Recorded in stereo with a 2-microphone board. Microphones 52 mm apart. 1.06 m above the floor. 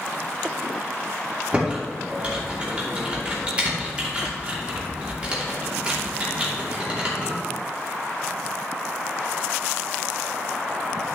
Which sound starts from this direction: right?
Typing on a keyboard, at 1.5 s.